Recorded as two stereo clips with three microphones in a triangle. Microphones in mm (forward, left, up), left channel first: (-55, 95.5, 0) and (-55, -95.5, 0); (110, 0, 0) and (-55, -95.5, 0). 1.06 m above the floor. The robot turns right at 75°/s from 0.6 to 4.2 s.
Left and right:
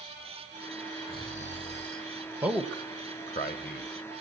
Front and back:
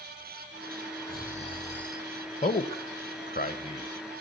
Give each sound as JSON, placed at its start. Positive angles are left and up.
{"t": 1.1, "sound": "snoring", "azimuth_deg": 55, "distance_m": 2.5}
{"t": 2.4, "sound": "a man speaking", "azimuth_deg": -15, "distance_m": 1.3}